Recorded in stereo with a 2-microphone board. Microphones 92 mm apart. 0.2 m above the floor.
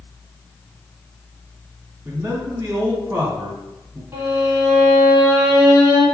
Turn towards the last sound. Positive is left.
turn(degrees=-30)  # may be behind; listen again after turning